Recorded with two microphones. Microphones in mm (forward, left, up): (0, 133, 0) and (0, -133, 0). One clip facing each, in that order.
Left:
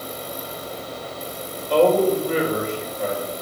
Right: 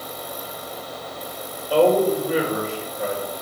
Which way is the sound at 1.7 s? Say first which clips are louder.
Even; 5° right (ahead or behind).